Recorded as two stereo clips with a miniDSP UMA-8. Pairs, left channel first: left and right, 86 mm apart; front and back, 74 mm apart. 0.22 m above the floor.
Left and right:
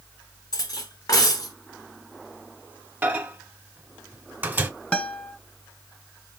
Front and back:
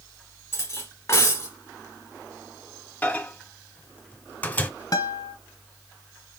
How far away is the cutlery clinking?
About 1.4 m.